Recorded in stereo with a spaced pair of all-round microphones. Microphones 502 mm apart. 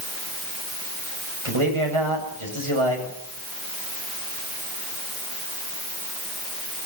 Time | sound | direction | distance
1.4 | a man speaking | 70° right (ahead or behind) | 7.5 m